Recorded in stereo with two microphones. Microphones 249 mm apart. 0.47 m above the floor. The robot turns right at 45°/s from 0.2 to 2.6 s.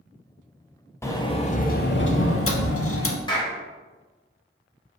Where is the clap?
20° left (ahead or behind), 1.3 m.